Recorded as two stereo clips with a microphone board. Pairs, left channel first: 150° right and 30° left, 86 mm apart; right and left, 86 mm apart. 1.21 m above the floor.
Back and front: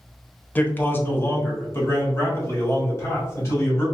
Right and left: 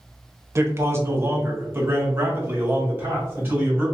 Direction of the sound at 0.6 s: 145° left.